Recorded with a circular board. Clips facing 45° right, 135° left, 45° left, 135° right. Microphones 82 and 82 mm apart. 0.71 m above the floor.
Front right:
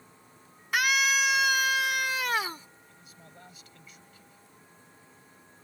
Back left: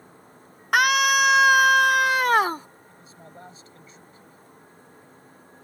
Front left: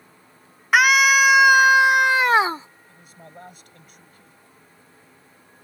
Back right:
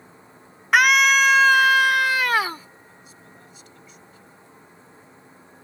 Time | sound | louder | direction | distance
0.7 | a scream | back left 7 dB, front left 1 dB | 130° left | ?
2.9 | a man speaking | back left 6 dB, front left 2 dB | 80° left | ?